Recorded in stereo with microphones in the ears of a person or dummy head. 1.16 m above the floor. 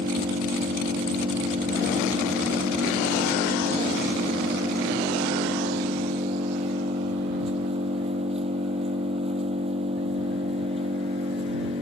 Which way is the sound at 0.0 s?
40° right (ahead or behind).